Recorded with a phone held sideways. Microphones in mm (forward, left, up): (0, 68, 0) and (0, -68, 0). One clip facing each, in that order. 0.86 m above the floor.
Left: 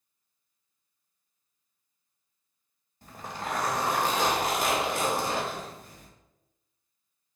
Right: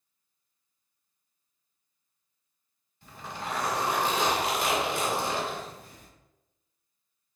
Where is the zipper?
40° left (ahead or behind), 1.3 m.